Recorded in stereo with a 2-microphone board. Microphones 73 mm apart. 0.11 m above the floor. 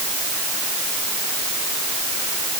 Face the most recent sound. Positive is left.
No sound to turn to.